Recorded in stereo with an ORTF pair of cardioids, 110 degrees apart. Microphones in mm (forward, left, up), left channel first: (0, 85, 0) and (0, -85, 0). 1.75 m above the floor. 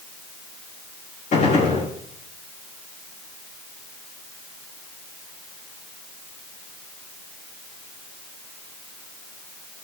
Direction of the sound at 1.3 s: 50° left.